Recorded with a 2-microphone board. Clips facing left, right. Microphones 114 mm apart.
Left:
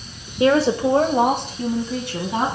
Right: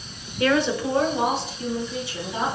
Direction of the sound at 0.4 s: 25° left (ahead or behind).